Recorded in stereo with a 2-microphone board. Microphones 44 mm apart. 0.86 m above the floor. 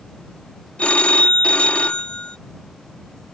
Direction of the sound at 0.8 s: 30° left (ahead or behind).